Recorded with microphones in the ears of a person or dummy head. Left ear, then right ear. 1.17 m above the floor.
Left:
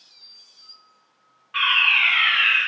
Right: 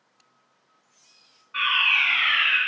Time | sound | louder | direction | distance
1.5 | a fire alarm | left 3 dB | 35° left (ahead or behind) | 1.1 m